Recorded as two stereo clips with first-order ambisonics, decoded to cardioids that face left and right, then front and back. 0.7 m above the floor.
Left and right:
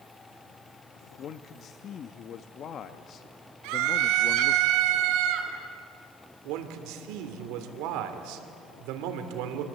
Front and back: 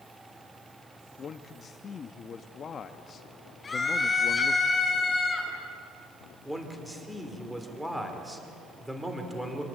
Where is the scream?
75° right, 4.5 m.